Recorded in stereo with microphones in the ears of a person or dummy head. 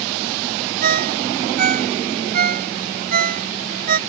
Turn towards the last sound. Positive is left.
turn(degrees=-45)  # may be behind; listen again after turning